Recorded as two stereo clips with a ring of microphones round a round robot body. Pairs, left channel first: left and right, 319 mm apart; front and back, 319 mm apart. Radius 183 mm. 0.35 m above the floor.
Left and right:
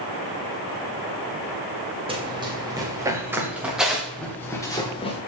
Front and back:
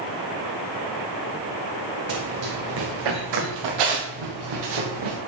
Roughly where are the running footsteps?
Behind.